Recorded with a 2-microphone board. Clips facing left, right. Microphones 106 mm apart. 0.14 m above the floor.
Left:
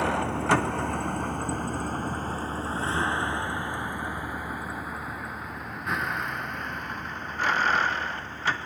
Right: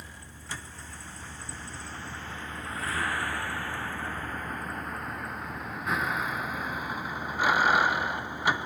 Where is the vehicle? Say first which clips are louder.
Left 22 dB; 75° left (ahead or behind); by 8.7 s 15° right (ahead or behind).